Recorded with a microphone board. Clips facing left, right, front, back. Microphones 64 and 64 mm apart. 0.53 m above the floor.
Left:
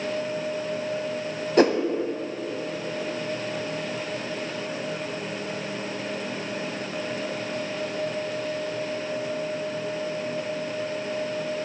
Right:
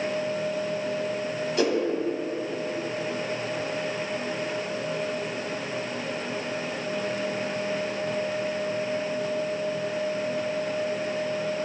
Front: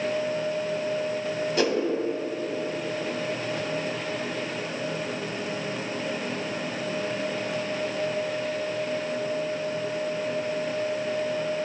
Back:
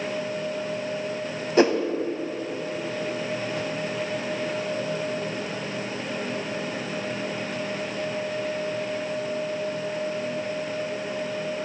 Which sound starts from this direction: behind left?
A whoosh, at 1.6 s.